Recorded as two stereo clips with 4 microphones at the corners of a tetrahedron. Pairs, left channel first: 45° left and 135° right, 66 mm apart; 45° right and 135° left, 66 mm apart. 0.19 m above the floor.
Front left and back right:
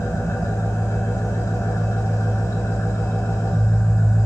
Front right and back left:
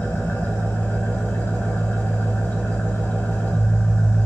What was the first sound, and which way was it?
An engine running, 10° left.